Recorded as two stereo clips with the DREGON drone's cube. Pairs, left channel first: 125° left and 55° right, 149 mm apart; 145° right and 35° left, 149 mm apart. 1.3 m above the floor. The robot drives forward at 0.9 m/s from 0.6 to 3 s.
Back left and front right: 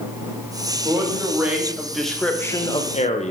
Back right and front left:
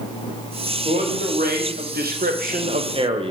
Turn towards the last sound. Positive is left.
turn(degrees=85)